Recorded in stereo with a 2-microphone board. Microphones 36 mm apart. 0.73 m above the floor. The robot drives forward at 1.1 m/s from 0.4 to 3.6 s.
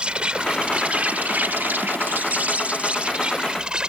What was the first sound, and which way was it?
An insect, 35° right (ahead or behind).